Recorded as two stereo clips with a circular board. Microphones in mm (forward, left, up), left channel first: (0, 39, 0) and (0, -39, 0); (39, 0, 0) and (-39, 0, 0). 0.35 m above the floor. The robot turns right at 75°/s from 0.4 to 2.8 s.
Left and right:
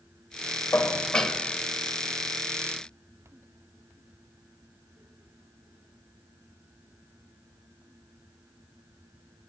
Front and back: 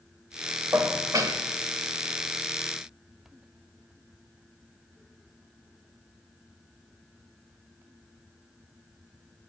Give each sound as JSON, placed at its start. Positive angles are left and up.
{"t": 0.7, "sound": "dishes clattering", "azimuth_deg": 135, "distance_m": 0.7}